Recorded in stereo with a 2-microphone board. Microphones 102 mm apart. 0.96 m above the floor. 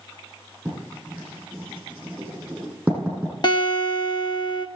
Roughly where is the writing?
Centre.